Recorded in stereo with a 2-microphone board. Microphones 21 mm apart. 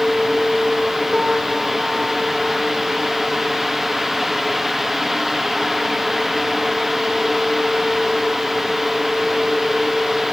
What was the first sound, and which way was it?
A piano, 30° right (ahead or behind).